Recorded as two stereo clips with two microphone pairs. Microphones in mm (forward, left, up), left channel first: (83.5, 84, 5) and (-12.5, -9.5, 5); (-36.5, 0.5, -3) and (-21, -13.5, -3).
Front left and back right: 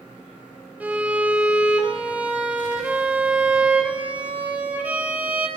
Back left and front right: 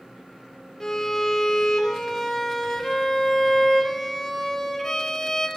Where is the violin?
160° left, 1.4 m.